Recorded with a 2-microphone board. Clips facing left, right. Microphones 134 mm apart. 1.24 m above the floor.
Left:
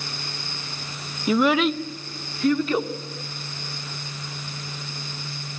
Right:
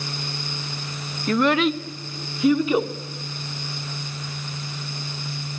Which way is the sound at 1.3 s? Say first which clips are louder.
Even; 10° left (ahead or behind).